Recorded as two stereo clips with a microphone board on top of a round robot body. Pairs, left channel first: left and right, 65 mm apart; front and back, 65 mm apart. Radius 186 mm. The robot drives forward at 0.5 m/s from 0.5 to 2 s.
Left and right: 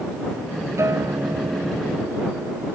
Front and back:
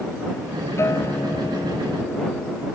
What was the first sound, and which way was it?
A guitar, 45° right.